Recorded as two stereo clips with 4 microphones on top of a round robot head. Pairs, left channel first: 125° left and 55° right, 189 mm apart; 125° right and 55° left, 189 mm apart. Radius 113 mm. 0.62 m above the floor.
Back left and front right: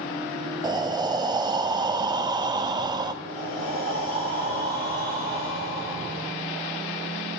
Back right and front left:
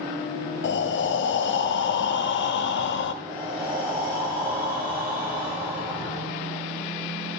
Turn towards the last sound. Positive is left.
turn(degrees=-10)